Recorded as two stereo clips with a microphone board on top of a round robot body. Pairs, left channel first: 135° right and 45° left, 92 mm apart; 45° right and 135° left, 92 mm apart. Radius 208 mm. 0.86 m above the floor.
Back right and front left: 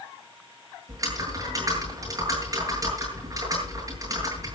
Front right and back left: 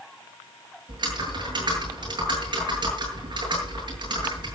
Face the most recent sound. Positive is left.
turn(degrees=100)